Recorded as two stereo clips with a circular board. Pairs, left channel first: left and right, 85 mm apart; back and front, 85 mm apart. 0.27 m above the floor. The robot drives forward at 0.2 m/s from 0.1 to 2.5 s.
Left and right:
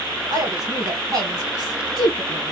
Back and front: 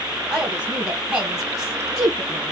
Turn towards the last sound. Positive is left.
turn(degrees=-95)